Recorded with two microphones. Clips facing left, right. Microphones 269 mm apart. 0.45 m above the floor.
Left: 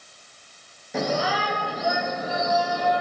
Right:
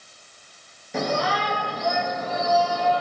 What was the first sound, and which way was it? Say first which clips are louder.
A shout: even; centre (ahead or behind).